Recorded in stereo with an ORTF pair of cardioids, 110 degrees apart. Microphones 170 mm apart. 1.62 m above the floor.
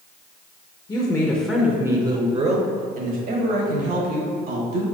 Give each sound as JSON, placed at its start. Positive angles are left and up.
{"t": 0.9, "sound": "a woman speaking", "azimuth_deg": 25, "distance_m": 0.9}